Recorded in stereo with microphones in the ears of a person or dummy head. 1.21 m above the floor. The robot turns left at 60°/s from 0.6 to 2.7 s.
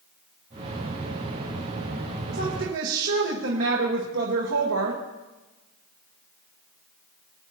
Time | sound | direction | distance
2.3 | a woman speaking | 45° right (ahead or behind) | 1.3 m